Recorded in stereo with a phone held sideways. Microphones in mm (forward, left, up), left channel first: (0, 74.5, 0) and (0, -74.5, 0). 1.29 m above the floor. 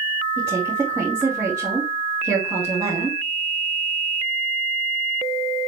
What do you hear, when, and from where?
0.4 s a woman speaking: 10° right (ahead or behind), 2.5 m